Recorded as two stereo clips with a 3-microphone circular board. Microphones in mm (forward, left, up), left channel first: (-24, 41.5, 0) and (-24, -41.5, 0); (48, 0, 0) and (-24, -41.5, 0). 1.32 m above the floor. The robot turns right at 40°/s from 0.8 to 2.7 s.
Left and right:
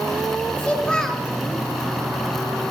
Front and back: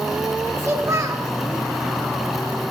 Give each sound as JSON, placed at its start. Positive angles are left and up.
{"t": 0.6, "sound": "a child speaking", "azimuth_deg": 160, "distance_m": 2.5}